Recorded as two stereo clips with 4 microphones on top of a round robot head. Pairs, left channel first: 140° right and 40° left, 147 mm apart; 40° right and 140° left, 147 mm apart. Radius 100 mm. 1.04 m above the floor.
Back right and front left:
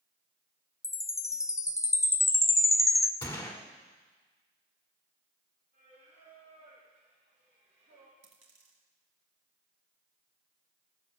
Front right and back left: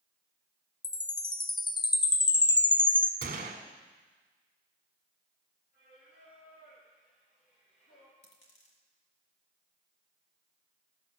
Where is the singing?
5° right, 4.5 m.